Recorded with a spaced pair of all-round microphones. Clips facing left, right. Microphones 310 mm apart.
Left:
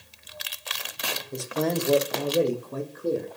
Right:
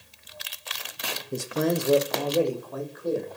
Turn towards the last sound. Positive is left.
turn(degrees=40)  # may be behind; listen again after turning